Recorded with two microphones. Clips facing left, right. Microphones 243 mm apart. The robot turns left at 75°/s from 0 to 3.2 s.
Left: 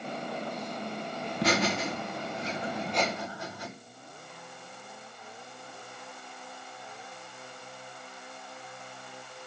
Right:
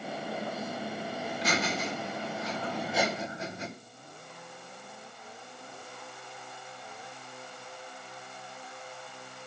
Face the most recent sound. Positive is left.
turn(degrees=-25)